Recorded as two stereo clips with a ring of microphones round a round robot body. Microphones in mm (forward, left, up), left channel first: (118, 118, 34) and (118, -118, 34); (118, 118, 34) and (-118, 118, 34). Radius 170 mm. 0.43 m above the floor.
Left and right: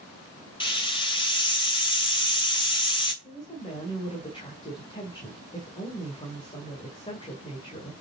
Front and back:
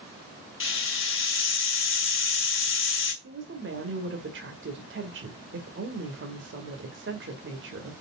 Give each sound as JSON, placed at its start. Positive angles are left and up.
{"t": 0.6, "sound": "a hiss", "azimuth_deg": 20, "distance_m": 2.5}
{"t": 3.2, "sound": "a woman speaking", "azimuth_deg": 160, "distance_m": 2.0}